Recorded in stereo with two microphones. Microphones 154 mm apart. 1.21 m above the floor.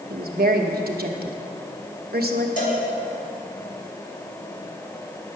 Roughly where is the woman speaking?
Right.